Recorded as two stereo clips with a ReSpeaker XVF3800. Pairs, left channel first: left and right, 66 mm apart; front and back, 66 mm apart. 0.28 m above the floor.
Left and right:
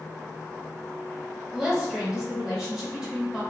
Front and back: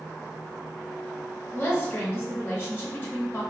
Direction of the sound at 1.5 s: 20° right.